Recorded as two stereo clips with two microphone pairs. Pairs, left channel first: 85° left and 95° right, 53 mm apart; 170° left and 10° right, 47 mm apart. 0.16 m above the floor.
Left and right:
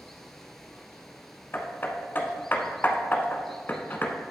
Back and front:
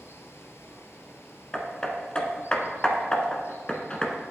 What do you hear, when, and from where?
0.0 s running water: 165° left, 1.0 m
1.5 s hammering: 110° left, 1.1 m